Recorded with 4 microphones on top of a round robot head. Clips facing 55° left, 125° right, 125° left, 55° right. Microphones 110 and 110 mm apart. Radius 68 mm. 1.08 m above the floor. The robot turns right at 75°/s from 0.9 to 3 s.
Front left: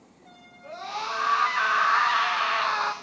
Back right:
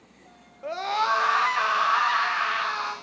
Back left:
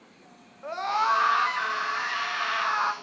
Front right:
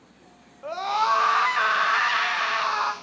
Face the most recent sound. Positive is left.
turn(degrees=30)